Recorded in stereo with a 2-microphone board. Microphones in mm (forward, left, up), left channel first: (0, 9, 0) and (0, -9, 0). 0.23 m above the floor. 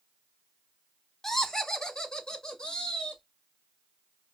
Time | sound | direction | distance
1.2 | laughter | 30° left (ahead or behind) | 1.1 m